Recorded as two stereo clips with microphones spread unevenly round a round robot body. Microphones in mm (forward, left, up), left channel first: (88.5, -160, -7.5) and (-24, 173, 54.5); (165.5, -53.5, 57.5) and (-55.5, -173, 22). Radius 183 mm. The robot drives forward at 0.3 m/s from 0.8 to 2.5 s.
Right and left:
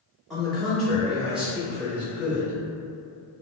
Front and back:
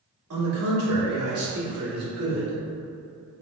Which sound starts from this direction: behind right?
A man speaking, at 0.3 s.